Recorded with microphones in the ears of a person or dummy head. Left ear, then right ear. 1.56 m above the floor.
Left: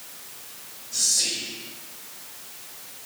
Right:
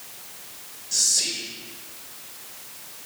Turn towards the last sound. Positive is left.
turn(degrees=-75)  # may be behind; listen again after turning